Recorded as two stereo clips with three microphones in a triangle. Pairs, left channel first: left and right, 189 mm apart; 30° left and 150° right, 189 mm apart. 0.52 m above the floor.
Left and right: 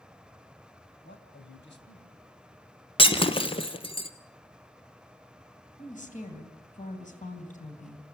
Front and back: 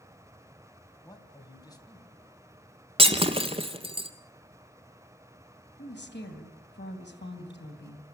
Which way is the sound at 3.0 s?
150° left.